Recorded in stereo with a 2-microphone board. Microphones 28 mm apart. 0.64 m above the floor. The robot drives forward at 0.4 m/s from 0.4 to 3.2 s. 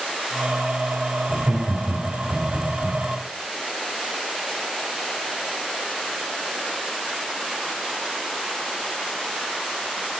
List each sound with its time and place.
1.3 s laughter: 75° right (ahead or behind), 1.8 m; by 3.0 s 60° right (ahead or behind), 2.0 m